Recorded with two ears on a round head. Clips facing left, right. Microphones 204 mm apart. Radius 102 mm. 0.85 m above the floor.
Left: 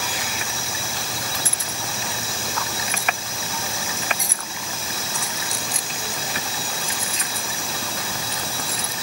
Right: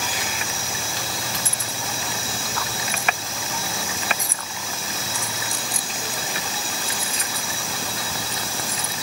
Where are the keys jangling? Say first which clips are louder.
Even; 55° left (ahead or behind); by 8.9 s 70° left (ahead or behind).